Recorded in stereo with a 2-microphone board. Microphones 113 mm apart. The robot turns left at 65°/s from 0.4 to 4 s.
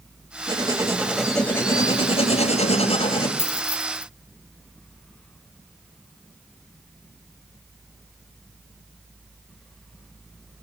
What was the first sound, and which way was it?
Writing, 130° right.